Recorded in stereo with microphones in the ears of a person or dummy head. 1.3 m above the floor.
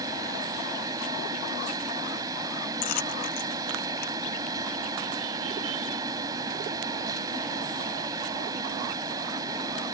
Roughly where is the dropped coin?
Left.